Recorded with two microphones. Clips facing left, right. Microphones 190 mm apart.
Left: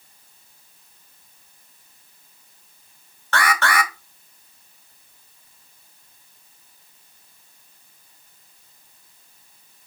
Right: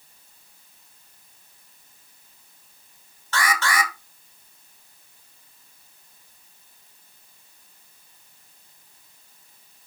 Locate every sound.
3.3 s an alarm: 65° left (ahead or behind), 0.9 m